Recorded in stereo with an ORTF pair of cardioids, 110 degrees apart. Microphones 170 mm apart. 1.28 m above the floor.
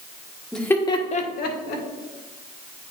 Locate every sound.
0.5 s laughter: 5° left, 1.4 m; by 1.8 s 80° left, 1.7 m